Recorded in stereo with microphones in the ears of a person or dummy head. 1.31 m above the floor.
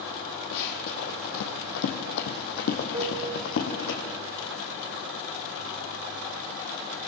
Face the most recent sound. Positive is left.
turn(degrees=-35)  # may be behind; listen again after turning